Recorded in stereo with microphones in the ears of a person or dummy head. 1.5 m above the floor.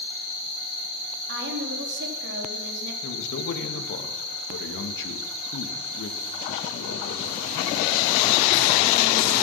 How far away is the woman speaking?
About 3.5 m.